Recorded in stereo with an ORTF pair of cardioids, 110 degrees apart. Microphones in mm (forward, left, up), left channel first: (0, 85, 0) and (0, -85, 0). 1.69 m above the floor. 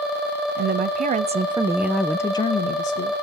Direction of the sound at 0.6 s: 60° right.